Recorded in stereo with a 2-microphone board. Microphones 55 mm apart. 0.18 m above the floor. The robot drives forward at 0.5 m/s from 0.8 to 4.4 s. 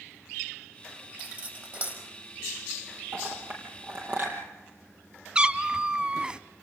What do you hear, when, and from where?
1.2 s cutlery clinking: 35° right (ahead or behind), 4.5 m
3.1 s a clink: 45° right (ahead or behind), 3.5 m; by 4.4 s 40° right (ahead or behind), 4 m
5.3 s a cat meowing: 20° right (ahead or behind), 0.5 m